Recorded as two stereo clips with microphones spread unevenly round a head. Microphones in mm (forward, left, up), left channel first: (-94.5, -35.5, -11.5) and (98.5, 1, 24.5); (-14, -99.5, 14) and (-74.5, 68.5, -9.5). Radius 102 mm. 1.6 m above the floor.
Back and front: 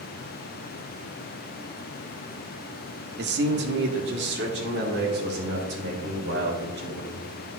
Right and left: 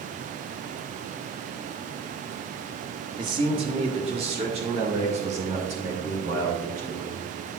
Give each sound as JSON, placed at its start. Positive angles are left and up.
{"t": 3.2, "sound": "a man speaking", "azimuth_deg": 40, "distance_m": 0.8}